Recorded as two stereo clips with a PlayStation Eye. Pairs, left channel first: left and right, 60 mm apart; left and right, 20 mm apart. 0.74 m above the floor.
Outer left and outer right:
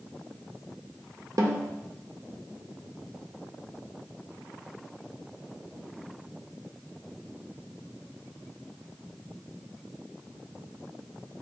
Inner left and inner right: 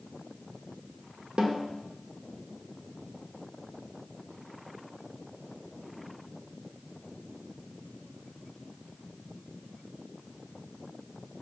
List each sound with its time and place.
1.4 s a snare drum: 75° right (ahead or behind), 0.6 m